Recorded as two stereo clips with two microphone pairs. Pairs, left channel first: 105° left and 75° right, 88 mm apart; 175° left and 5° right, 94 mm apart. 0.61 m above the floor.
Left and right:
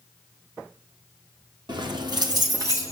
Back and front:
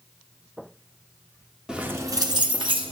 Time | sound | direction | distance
1.7 | keys jangling | 85° right | 0.9 m